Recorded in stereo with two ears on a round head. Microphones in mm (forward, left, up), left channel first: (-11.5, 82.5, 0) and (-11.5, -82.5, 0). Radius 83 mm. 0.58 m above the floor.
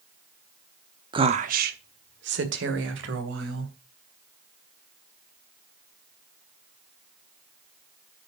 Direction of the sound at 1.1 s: 25° right (ahead or behind).